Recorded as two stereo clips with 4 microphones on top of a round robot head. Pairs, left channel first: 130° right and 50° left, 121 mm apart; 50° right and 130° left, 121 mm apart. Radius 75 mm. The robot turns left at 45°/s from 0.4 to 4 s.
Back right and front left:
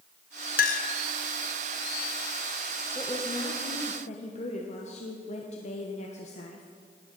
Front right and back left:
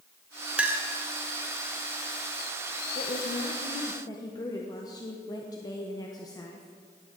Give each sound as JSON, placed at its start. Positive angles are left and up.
{"t": 0.6, "sound": "a clink", "azimuth_deg": -145, "distance_m": 0.9}
{"t": 3.0, "sound": "a woman speaking", "azimuth_deg": -60, "distance_m": 1.3}